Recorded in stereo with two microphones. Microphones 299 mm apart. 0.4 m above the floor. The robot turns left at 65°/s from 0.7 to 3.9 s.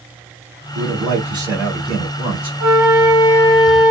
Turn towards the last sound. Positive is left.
turn(degrees=30)